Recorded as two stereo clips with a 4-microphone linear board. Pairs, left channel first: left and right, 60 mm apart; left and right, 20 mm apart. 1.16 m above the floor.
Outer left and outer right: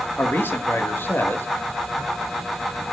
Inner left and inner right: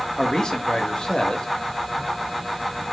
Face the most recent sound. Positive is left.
turn(degrees=35)  # may be behind; listen again after turning